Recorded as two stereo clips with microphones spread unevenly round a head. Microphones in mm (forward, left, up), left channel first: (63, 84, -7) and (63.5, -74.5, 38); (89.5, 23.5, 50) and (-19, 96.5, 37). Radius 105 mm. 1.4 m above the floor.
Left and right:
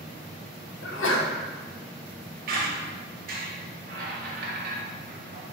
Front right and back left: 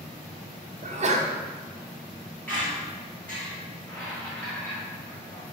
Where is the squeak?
115° right, 0.7 m.